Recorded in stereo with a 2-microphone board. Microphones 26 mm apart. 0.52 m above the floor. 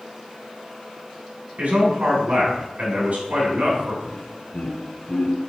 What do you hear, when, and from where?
1.6 s a man speaking: 60° right (ahead or behind), 3.5 m
4.0 s laughter: 70° left (ahead or behind), 3 m